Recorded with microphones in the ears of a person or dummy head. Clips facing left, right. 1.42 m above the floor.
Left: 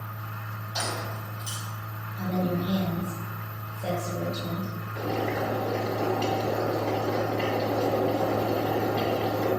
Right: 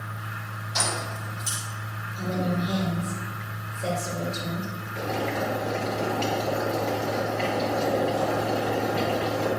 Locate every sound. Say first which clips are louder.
0.8 s keys jangling: right 2 dB; 30° right (ahead or behind), 4 m
2.1 s a woman speaking: even; 35° right (ahead or behind), 2.5 m
5.0 s boiling: even; 10° right (ahead or behind), 4 m